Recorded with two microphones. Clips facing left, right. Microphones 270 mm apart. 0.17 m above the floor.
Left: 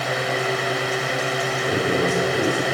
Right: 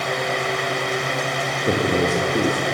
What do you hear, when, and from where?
1.7 s a man speaking: 50° right (ahead or behind), 5.5 m